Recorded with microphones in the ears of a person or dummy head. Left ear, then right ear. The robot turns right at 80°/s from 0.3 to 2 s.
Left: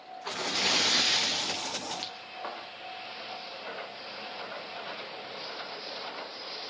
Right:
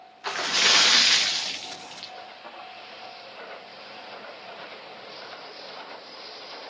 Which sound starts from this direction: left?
A thud, at 2.4 s.